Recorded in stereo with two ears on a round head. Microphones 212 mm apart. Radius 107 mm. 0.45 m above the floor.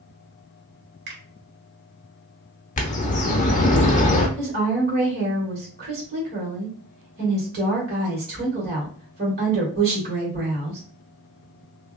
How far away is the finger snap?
About 1.4 m.